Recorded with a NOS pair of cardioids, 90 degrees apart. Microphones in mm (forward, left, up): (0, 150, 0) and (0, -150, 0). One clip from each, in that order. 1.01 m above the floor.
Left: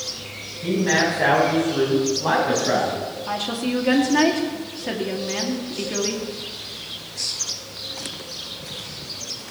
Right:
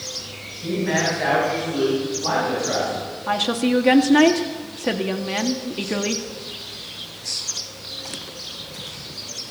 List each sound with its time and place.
0.6 s a man speaking: 20° left, 7.5 m; by 3.1 s 35° left, 8.5 m
3.3 s a woman speaking: 40° right, 1.9 m